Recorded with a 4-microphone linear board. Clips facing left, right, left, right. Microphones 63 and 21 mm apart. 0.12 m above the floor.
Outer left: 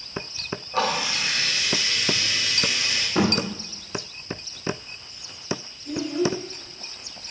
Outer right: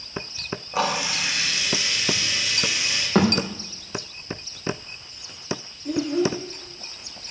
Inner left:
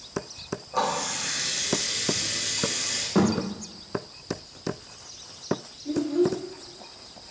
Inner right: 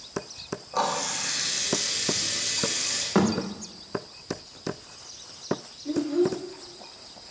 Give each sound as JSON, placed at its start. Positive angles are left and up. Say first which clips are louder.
{"t": 0.7, "sound": "a running tap", "louder": "even, even", "side_deg": -15, "distance_m": 4.5}
{"t": 3.1, "sound": "a thud", "louder": "outer right 3 dB, even", "side_deg": -85, "distance_m": 4.5}
{"t": 5.8, "sound": "a child speaking", "louder": "outer right 2 dB, inner left 1 dB", "side_deg": -80, "distance_m": 4.0}